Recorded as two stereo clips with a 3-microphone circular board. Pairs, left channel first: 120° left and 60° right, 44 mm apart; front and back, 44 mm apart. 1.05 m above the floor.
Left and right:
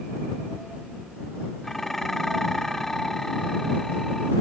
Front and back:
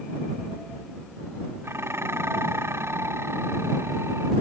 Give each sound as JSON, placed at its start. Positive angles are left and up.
{"t": 1.6, "sound": "dishes clattering", "azimuth_deg": -160}